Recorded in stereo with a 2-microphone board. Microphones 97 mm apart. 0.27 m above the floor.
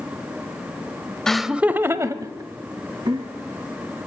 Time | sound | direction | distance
1.3 | laughter | 5° left (ahead or behind) | 0.9 m